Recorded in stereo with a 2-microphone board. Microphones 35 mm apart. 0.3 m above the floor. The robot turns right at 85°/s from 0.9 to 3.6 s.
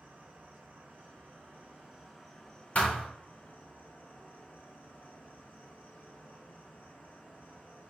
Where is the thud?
40° left (ahead or behind), 0.8 m; by 3.1 s 15° left (ahead or behind), 0.8 m.